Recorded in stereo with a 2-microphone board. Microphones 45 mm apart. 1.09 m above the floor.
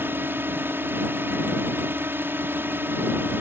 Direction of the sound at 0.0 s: 55° right (ahead or behind).